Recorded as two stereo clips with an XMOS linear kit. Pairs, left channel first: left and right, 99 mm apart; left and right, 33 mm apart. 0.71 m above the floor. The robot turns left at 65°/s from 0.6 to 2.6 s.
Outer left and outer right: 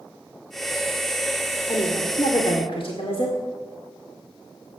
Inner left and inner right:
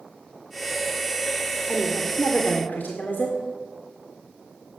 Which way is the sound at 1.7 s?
130° left.